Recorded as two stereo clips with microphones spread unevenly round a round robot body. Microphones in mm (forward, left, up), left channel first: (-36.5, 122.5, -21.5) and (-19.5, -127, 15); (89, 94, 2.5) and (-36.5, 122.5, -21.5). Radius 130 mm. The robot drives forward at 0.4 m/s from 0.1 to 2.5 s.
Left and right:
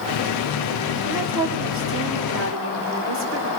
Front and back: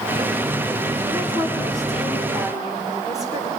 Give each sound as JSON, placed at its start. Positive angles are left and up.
{"t": 1.1, "sound": "a woman speaking", "azimuth_deg": -55, "distance_m": 1.7}